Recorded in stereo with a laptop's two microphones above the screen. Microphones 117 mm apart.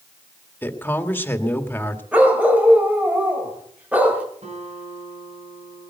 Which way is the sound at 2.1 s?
15° right (ahead or behind).